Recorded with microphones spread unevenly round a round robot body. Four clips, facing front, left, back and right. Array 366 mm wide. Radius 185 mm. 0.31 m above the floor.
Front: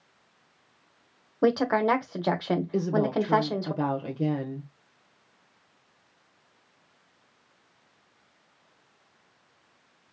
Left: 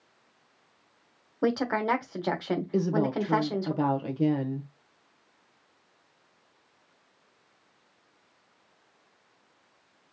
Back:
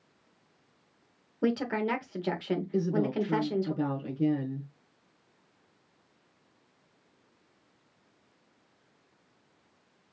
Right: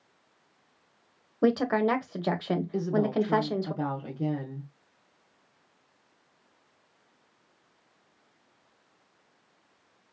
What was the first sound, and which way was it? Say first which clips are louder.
A woman speaking: right 2 dB, front 6 dB; 30° right.